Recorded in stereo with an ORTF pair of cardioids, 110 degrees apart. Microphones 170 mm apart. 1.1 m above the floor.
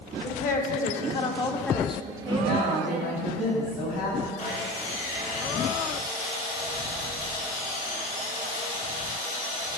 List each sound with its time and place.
0.2 s a woman speaking: 60° left, 1.1 m; by 3.2 s 65° right, 0.9 m
2.2 s a woman speaking: 70° left, 2.5 m
4.4 s sawing: 55° left, 1.9 m